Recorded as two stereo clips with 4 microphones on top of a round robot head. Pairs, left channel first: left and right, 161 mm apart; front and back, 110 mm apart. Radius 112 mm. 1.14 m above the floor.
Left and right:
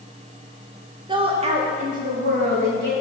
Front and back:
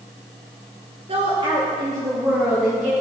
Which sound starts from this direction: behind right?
A woman speaking, at 1.1 s.